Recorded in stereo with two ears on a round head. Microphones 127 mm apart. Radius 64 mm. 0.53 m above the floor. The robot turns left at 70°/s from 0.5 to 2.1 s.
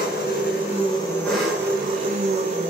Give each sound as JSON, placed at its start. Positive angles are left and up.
{"t": 0.0, "sound": "an engine running", "azimuth_deg": 65, "distance_m": 7.0}